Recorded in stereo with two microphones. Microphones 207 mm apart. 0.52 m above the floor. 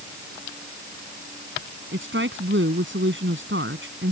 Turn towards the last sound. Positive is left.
turn(degrees=-70)  # may be behind; listen again after turning